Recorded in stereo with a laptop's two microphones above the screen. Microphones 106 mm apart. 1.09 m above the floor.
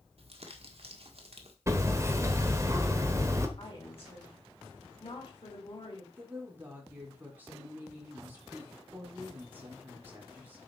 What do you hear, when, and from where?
0.2 s crumpling: 60° right (ahead or behind), 1.5 m
1.7 s hammering: 25° right (ahead or behind), 1.4 m
3.6 s a woman speaking: 55° left (ahead or behind), 3 m
6.2 s a woman speaking: 15° right (ahead or behind), 4 m